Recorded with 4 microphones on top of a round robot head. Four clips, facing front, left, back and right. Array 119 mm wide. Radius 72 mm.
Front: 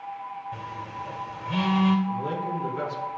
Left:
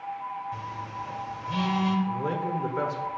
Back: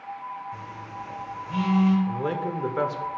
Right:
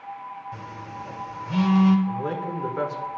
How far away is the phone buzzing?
About 1.2 m.